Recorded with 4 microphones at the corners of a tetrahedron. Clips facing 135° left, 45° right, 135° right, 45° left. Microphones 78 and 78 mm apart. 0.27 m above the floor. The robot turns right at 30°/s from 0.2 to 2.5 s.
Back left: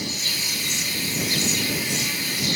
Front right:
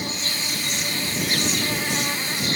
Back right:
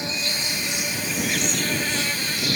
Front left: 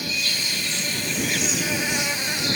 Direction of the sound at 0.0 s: 80° right.